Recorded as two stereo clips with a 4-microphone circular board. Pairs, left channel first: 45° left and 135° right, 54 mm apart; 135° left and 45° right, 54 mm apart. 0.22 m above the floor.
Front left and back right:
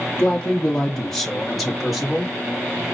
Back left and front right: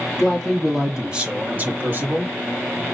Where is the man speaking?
75° left, 1.3 m; by 2.3 s 55° right, 1.7 m.